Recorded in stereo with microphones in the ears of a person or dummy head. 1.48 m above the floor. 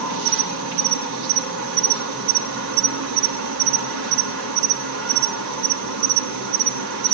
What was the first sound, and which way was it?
An insect, 60° right (ahead or behind).